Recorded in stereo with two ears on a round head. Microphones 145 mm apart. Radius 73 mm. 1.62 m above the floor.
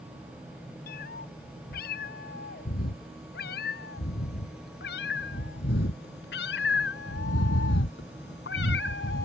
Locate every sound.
0.9 s a cat meowing: 65° left (ahead or behind); by 9.3 s 70° left (ahead or behind)